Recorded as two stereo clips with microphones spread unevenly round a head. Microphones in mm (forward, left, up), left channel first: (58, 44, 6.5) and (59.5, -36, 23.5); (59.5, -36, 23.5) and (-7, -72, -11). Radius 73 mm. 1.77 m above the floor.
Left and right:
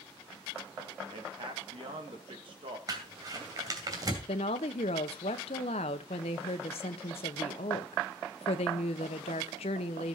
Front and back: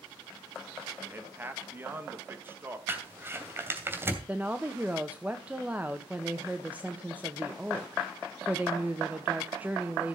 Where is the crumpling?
80° right, 2.5 m.